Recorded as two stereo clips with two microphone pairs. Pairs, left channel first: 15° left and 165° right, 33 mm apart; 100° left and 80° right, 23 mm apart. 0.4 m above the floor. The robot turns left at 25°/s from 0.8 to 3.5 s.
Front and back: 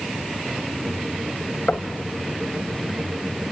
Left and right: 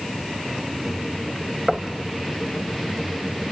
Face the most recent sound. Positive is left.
turn(degrees=-35)